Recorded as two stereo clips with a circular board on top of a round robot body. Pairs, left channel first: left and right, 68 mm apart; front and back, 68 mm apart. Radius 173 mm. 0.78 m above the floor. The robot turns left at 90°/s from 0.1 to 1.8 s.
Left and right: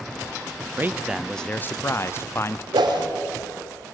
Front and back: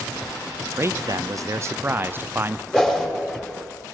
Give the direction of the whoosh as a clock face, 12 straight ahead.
3 o'clock.